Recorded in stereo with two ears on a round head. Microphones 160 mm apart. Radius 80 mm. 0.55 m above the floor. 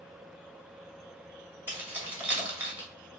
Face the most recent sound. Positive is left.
turn(degrees=-10)  # may be behind; listen again after turning